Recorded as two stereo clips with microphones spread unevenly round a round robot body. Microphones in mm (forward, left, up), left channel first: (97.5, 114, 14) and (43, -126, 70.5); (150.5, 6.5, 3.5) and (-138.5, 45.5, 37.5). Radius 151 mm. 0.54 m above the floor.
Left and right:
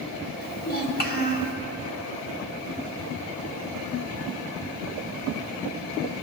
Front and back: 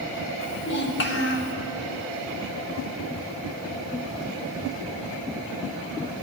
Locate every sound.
0.4 s a child speaking: 35° left, 1.4 m